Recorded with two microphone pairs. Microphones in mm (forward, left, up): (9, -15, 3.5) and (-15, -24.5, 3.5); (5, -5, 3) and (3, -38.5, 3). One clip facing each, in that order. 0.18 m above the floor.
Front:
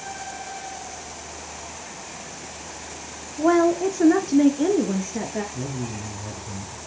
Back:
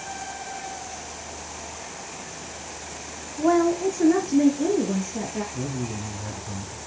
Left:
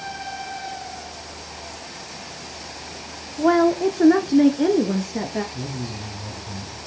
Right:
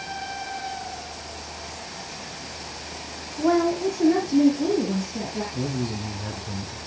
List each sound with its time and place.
3.4 s a woman speaking: 75° left, 1.5 m; by 5.4 s 80° left, 3.5 m
5.5 s a man speaking: 85° right, 2 m